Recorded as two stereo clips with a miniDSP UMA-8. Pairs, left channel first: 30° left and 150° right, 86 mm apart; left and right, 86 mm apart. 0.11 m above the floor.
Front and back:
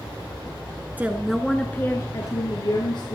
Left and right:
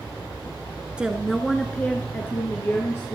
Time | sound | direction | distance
1.0 | a woman speaking | 145° right | 1.2 m